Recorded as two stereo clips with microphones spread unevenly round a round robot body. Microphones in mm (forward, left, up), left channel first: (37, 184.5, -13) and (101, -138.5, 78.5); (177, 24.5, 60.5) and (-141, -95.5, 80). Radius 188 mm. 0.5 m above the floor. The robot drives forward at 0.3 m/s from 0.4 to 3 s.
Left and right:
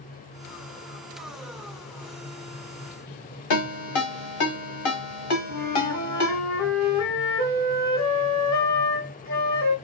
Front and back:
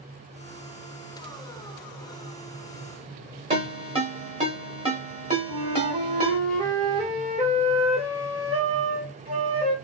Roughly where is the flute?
Behind left.